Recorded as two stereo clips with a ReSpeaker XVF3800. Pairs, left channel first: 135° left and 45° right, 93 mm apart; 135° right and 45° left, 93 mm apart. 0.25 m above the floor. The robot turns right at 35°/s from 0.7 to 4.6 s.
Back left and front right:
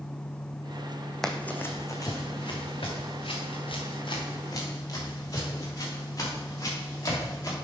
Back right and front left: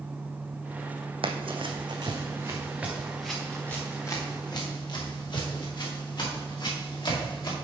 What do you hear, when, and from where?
1.2 s running footsteps: 50° left, 0.8 m; by 7.5 s 170° right, 4.5 m